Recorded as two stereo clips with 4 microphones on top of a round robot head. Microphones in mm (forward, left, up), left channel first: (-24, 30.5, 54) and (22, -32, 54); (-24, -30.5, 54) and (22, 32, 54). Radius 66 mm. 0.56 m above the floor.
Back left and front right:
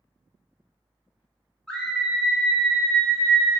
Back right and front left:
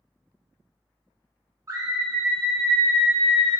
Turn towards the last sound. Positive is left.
turn(degrees=150)